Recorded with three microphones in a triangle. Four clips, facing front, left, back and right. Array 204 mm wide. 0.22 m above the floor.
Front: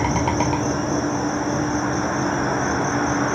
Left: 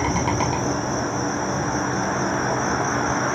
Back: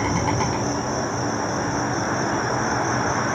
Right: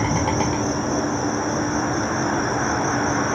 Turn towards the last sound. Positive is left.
turn(degrees=-20)